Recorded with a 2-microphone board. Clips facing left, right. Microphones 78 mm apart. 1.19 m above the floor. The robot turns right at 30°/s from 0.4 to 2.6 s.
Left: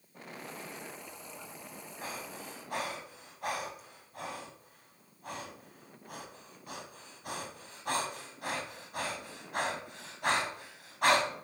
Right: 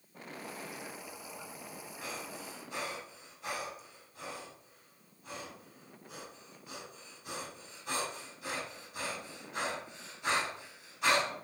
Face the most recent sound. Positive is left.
turn(degrees=55)  # may be behind; listen again after turning